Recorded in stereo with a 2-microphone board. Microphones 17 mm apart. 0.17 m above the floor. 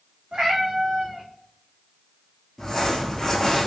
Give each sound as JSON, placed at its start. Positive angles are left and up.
{"t": 0.3, "sound": "a cat meowing", "side_deg": -65, "distance_m": 1.5}
{"t": 2.6, "sound": "crumpling", "side_deg": 30, "distance_m": 1.6}